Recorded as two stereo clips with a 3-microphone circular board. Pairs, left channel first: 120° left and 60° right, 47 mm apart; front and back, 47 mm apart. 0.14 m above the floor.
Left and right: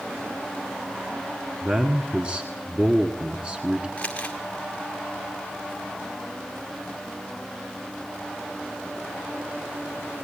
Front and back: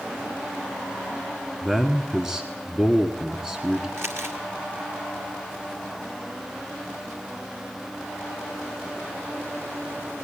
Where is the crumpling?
Straight behind, 1.9 m.